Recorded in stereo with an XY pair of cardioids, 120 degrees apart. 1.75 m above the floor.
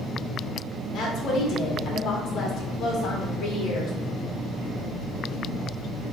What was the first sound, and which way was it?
A woman speaking, 55° left.